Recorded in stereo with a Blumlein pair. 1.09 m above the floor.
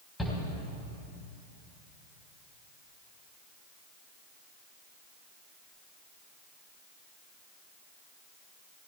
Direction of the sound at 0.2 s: 10° left.